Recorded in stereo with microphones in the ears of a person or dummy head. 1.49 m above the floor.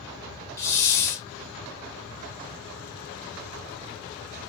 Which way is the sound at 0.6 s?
10° left (ahead or behind).